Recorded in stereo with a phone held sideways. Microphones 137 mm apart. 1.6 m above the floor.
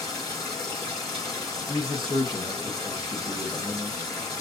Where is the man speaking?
35° right (ahead or behind), 1.6 m.